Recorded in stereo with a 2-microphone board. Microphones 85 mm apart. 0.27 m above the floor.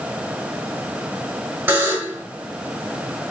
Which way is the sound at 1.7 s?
25° right (ahead or behind).